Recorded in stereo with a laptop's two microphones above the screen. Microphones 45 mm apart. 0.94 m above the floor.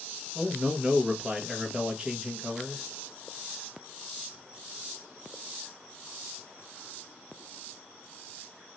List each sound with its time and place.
0.3 s a man speaking: 20° right (ahead or behind), 0.6 m